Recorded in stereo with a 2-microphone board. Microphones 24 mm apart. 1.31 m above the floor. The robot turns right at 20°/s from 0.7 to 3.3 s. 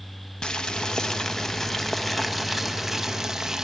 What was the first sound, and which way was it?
Boiling, 150° left.